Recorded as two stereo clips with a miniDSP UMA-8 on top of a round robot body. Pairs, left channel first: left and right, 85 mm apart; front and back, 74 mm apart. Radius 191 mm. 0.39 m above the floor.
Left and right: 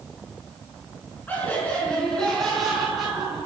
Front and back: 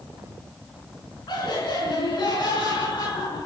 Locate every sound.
1.3 s laughter: 20° left, 6.5 m; by 3.5 s 10° right, 5 m